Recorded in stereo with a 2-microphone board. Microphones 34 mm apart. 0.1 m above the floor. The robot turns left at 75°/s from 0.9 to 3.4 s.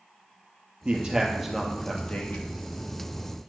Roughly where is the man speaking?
Behind right.